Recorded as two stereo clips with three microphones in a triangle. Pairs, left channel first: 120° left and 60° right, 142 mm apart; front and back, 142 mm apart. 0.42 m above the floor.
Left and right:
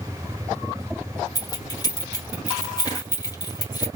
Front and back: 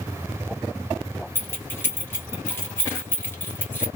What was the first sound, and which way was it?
Keys jangling, 70° left.